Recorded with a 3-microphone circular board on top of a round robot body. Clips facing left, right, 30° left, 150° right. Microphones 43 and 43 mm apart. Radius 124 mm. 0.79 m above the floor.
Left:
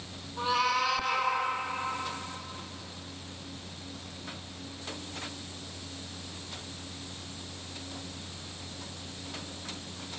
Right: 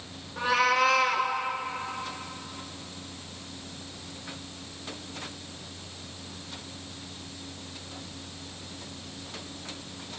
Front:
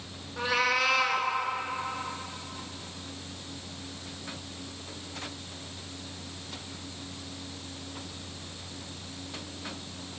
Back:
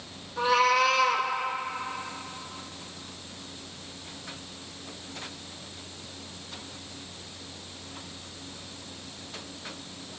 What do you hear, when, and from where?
0.4 s a cat meowing: 45° right, 3.5 m